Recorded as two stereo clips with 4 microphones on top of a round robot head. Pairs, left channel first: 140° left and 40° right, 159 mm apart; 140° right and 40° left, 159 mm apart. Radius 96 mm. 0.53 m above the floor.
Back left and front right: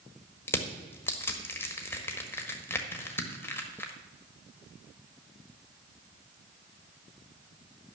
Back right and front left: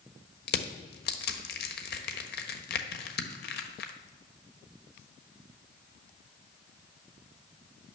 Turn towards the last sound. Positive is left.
turn(degrees=-145)